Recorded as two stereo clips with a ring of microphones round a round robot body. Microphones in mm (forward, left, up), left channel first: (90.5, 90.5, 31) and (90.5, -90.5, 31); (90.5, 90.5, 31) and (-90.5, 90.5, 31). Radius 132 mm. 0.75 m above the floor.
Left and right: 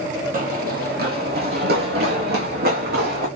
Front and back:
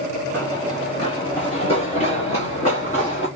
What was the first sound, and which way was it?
Running footsteps, 75° right.